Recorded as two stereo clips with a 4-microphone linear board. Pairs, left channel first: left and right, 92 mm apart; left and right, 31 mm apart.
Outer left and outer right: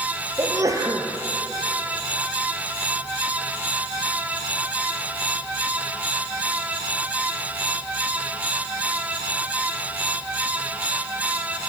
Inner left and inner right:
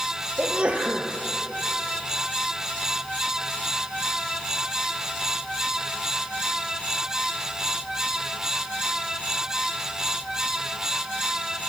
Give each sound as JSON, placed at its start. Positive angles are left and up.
{"t": 0.4, "sound": "a sneeze", "side_deg": -35, "distance_m": 4.0}